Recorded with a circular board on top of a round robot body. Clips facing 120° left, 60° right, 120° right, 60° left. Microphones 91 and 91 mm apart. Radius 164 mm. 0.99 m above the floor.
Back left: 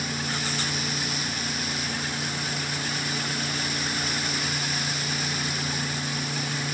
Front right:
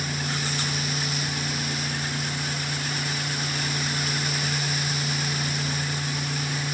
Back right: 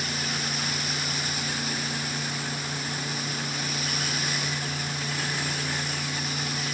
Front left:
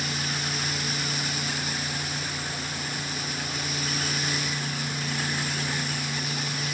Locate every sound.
Only background noise.